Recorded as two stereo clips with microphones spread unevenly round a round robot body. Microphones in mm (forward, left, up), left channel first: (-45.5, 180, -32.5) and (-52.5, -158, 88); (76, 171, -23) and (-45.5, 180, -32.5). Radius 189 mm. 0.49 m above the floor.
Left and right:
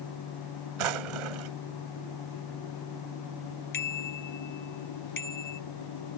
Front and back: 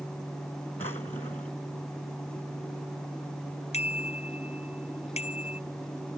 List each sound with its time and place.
0.8 s a drawer: 80° right
3.7 s a bicycle bell: 25° left